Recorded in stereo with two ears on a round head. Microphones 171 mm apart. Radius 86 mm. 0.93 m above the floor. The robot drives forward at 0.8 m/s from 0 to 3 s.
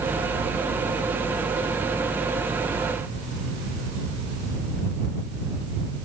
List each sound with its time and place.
Only background noise.